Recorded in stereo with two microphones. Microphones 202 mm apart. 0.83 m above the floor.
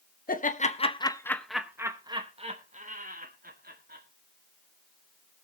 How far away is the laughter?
About 0.9 m.